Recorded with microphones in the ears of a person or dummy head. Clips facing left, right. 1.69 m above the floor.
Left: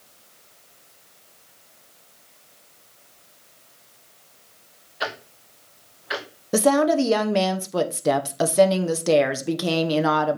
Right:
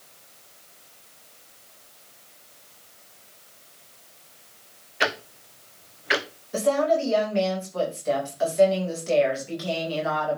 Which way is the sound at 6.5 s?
65° left (ahead or behind).